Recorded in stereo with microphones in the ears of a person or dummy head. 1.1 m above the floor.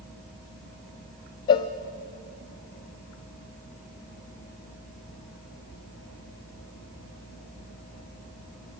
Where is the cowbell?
20° left (ahead or behind), 0.5 m.